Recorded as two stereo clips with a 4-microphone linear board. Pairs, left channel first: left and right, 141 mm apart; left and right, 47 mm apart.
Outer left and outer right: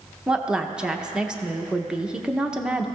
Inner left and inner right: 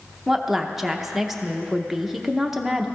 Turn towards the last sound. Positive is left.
turn(degrees=-5)  # may be behind; listen again after turning